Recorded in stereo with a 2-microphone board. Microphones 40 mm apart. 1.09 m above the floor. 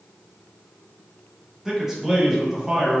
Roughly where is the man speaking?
Centre.